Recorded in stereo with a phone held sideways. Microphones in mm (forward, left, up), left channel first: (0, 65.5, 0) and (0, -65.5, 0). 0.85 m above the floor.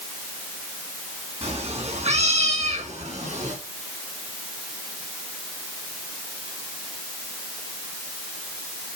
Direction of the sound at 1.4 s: 50° right (ahead or behind).